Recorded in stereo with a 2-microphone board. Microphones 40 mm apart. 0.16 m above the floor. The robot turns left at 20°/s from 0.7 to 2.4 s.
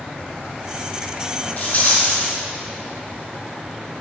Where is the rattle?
40° left (ahead or behind), 1.5 m; by 2.2 s 45° left (ahead or behind), 1.5 m.